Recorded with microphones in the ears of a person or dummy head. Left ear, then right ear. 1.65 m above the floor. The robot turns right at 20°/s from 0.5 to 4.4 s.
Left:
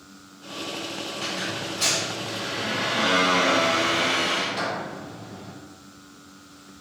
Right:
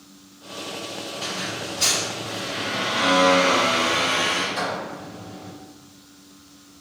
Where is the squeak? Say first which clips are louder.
Right 1 dB; 145° left, 1.1 m; by 5.5 s 150° right, 1.1 m.